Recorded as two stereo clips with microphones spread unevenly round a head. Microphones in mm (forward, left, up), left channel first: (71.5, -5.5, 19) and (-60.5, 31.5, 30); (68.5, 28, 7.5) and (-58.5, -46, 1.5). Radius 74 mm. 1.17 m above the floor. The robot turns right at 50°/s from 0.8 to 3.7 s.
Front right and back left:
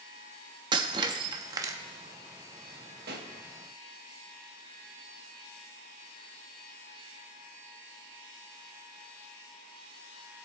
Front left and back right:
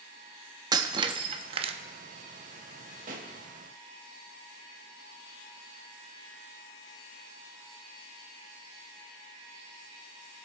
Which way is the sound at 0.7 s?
165° left.